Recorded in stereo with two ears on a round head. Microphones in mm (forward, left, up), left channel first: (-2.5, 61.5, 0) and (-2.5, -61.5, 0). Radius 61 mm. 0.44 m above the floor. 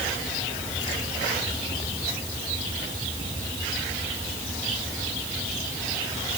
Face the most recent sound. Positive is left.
No sound to turn to.